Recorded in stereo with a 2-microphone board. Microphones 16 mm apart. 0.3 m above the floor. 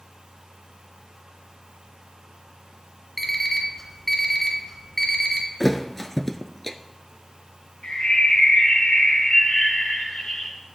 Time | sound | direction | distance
3.2 | an alarm clock | 15° left (ahead or behind) | 1.6 m
5.6 | a thud | 10° left (ahead or behind) | 0.6 m
7.8 | a bird | 65° left (ahead or behind) | 4 m